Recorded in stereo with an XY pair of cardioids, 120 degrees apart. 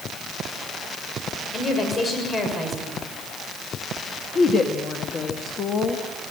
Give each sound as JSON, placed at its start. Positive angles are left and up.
{"t": 1.5, "sound": "a woman speaking", "azimuth_deg": 30, "distance_m": 6.5}
{"t": 4.3, "sound": "a woman speaking", "azimuth_deg": 45, "distance_m": 1.9}